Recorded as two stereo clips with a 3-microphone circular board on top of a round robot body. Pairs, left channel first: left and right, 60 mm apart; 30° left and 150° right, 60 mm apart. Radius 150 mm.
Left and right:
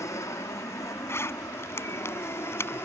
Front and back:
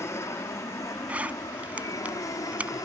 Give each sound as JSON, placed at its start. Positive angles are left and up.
{"t": 0.0, "sound": "an aircraft", "azimuth_deg": 60}
{"t": 1.1, "sound": "a zipper", "azimuth_deg": 140}